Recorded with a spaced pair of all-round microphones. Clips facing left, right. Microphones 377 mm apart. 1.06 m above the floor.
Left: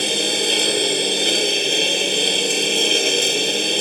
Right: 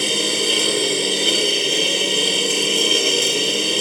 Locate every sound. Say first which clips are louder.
0.0 s a lawn mower: even; 5° right (ahead or behind)